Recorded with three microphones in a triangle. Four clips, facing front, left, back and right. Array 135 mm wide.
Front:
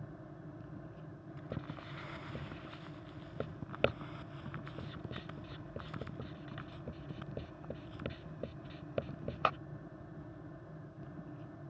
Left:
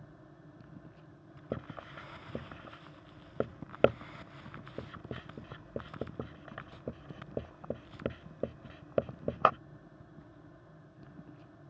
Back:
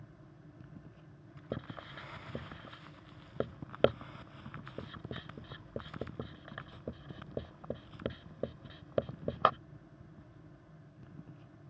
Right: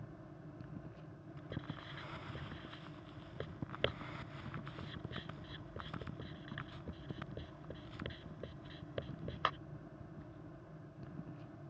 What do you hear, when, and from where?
1.5 s writing: 115° left